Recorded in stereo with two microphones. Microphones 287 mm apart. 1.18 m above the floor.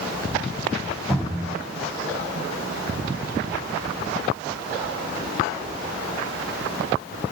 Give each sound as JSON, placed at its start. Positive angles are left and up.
{"t": 1.1, "sound": "a cupboard door", "side_deg": 0, "distance_m": 4.0}